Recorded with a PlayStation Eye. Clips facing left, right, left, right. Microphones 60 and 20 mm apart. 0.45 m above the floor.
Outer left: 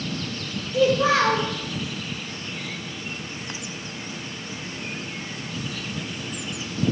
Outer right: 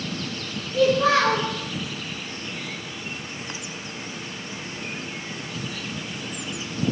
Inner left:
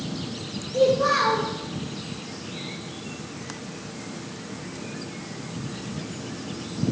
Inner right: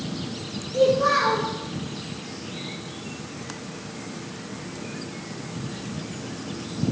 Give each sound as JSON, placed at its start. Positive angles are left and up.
{"t": 0.7, "sound": "a child speaking", "side_deg": 10, "distance_m": 0.6}